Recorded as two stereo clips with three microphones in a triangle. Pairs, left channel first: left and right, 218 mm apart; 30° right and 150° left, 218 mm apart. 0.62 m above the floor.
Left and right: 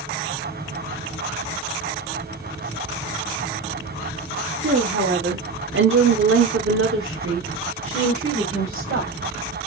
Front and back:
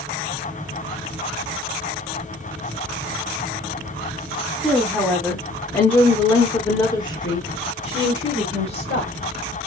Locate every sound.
4.6 s a woman speaking: 120° right, 1.8 m; by 9.1 s 60° right, 3 m